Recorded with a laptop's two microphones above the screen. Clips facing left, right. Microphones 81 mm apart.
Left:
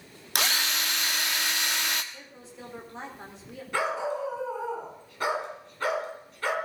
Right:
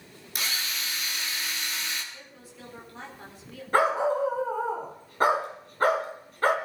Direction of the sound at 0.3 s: 75° left (ahead or behind).